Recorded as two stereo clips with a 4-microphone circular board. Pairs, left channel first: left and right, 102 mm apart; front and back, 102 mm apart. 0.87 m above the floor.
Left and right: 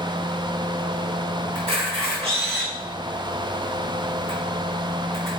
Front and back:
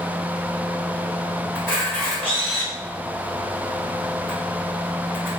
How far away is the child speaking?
No child speaking in this recording.